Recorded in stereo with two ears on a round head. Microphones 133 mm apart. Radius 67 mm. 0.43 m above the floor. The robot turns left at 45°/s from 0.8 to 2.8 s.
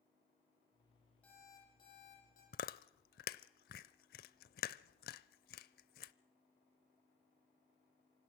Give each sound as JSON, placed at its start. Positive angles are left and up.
{"t": 1.2, "sound": "an alarm clock", "azimuth_deg": 170, "distance_m": 10.0}
{"t": 2.5, "sound": "chewing", "side_deg": 65, "distance_m": 0.7}